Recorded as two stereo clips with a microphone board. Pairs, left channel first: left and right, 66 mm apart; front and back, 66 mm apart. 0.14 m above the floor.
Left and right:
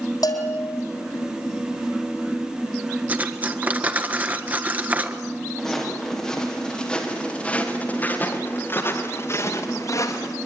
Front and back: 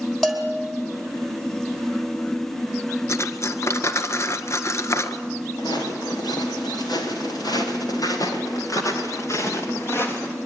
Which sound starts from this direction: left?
A bell, at 0.2 s.